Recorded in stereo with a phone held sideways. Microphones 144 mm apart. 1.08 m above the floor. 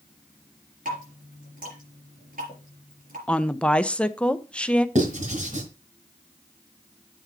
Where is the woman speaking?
5° left (ahead or behind), 0.5 m.